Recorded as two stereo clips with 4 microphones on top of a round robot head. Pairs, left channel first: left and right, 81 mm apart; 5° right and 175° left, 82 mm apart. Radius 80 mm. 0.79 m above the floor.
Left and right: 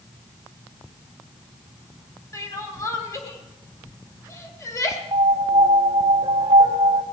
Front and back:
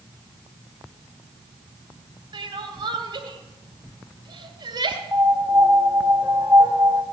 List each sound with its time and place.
2.3 s crying: 145° left, 2 m
5.1 s a piano: 125° right, 0.8 m